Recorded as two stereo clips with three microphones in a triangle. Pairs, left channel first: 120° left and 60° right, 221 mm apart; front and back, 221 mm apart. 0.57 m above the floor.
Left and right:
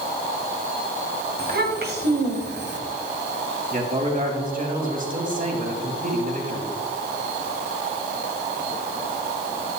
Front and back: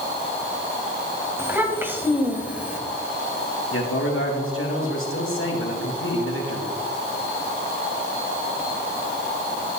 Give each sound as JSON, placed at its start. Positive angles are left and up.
{"t": 1.4, "sound": "a child speaking", "azimuth_deg": -100, "distance_m": 2.5}
{"t": 3.7, "sound": "a man speaking", "azimuth_deg": -10, "distance_m": 3.0}